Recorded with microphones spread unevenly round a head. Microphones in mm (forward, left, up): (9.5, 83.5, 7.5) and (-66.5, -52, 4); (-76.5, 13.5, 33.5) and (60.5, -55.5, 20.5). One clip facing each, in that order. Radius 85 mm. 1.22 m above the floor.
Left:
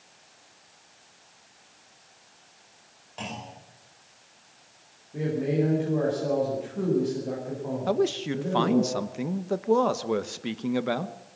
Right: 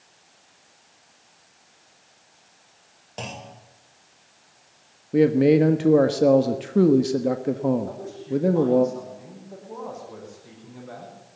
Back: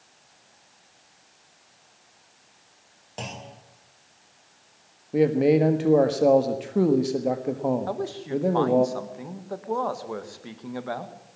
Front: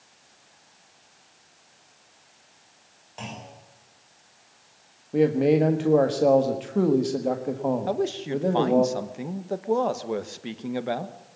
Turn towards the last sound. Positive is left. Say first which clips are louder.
# left 5 dB, front 3 dB
turn(degrees=40)